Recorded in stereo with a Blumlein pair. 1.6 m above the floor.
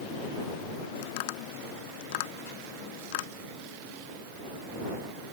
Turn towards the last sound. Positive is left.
turn(degrees=50)